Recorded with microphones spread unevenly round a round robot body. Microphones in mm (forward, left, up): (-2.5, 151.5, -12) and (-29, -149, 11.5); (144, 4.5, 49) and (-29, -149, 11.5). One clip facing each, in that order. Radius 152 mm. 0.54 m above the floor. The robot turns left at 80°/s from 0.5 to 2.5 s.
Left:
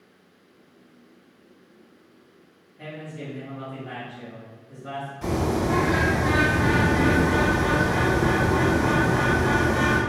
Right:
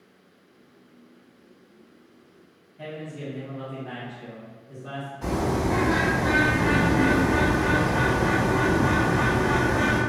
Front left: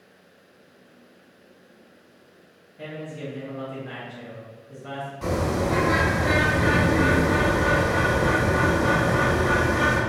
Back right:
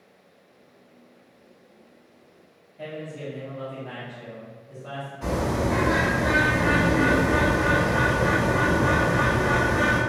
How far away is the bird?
About 1.4 m.